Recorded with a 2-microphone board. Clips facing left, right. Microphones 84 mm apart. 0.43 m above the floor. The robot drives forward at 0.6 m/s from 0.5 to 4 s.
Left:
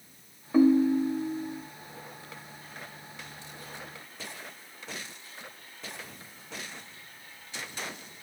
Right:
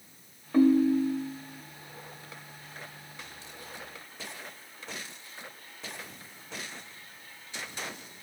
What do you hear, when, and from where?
0.5 s a ringtone: 10° left (ahead or behind), 0.7 m; by 1.6 s 5° left (ahead or behind), 1.3 m